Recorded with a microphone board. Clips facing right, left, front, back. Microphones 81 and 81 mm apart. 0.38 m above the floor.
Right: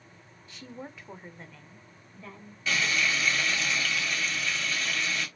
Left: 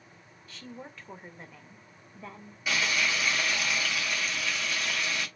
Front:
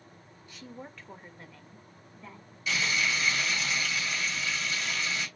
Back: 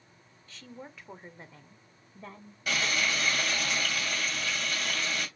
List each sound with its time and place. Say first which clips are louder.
0.5 s a woman speaking: right 2 dB, front 1 dB; 55° right, 0.8 m; by 2.6 s 150° left, 1.4 m
2.7 s frying: right 1 dB, even; 165° left, 3 m